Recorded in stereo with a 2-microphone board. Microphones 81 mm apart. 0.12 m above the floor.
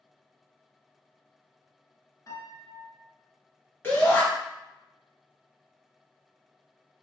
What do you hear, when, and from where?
2.3 s a piano: 45° left (ahead or behind), 0.9 m
3.8 s a shout: 25° left (ahead or behind), 1.4 m